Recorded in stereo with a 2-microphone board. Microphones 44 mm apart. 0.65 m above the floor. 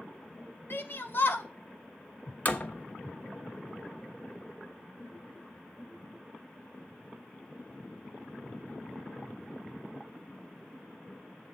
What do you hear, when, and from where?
0.7 s a shout: 50° left (ahead or behind), 1.0 m
2.5 s a door slam: 40° left (ahead or behind), 0.7 m